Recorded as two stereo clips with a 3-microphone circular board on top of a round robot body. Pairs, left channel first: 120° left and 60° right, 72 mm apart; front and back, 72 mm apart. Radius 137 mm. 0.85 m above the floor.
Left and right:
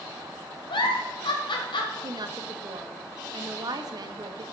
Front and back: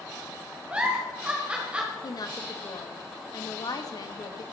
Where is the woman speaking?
35° right, 1.3 m.